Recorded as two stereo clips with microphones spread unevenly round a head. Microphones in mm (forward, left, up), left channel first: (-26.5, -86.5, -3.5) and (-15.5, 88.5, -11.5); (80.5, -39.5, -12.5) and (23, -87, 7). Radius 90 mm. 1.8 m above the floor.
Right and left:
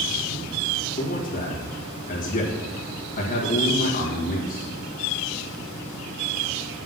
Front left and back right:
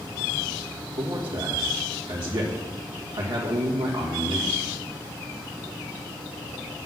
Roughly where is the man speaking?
Behind right.